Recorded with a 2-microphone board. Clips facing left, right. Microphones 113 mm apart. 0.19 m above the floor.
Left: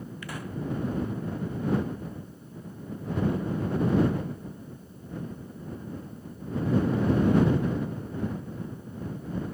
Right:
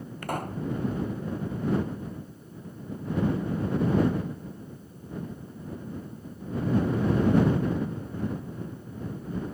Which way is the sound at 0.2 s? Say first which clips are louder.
Right 5 dB; 50° right (ahead or behind).